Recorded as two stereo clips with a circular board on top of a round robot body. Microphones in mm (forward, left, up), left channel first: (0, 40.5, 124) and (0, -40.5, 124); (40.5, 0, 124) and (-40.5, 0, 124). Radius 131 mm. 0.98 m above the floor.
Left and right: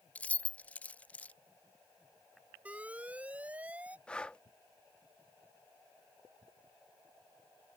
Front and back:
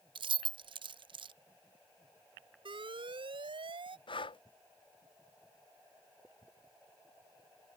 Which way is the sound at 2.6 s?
165° right.